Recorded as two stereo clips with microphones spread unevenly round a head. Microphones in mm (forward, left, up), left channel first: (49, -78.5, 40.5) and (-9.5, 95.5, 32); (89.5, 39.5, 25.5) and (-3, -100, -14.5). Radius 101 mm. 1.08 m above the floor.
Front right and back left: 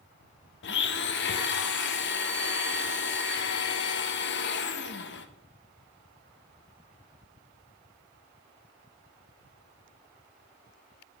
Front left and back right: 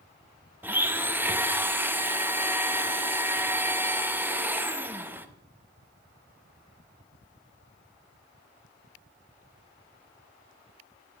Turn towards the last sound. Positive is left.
turn(degrees=-45)